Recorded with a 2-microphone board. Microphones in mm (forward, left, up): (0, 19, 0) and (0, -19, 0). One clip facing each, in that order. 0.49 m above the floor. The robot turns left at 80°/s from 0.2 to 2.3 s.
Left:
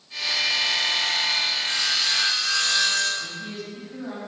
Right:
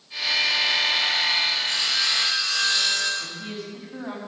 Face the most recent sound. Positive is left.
turn(degrees=-35)  # may be behind; listen again after turning